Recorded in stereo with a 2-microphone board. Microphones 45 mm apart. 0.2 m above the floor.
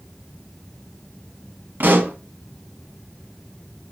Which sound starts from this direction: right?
A pop, at 1.8 s.